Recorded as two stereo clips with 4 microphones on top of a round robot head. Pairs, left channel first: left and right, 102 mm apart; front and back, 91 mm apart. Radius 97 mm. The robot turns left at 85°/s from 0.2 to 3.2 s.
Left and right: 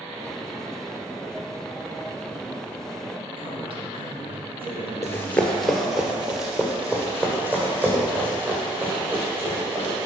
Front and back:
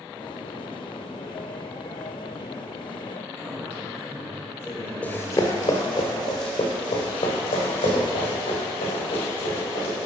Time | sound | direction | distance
3.4 | a man speaking | 75° right | 2.5 m
5.0 | running footsteps | 60° left | 0.7 m